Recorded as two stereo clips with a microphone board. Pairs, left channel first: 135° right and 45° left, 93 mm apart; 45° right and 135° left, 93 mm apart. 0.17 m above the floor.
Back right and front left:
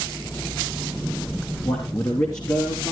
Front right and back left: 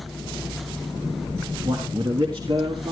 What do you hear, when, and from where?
1.6 s a man speaking: straight behind, 3.5 m; by 2.9 s 170° left, 3 m